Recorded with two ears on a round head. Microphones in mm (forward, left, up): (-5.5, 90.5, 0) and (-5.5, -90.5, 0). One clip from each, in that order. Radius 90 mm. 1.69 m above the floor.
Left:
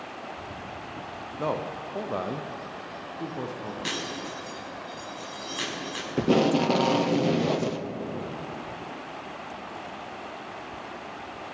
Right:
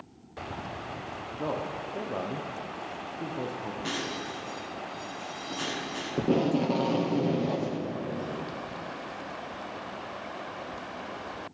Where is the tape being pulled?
45° left (ahead or behind), 0.6 m.